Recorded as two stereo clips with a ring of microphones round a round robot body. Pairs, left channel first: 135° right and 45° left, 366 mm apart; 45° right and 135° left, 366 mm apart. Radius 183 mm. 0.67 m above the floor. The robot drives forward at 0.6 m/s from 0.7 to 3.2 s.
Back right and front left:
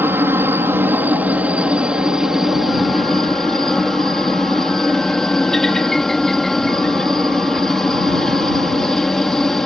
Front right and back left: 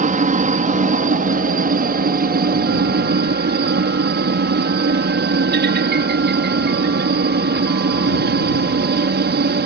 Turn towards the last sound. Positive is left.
turn(degrees=135)